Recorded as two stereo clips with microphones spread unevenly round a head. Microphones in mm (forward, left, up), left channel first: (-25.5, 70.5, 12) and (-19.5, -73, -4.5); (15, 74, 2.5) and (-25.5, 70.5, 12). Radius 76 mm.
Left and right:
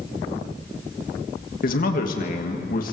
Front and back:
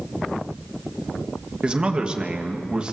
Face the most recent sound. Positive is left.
turn(degrees=120)